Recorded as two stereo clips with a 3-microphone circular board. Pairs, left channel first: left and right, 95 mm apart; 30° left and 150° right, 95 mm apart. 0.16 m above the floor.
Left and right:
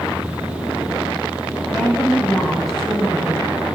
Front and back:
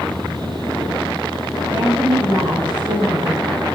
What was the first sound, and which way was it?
A woman speaking, 175° left.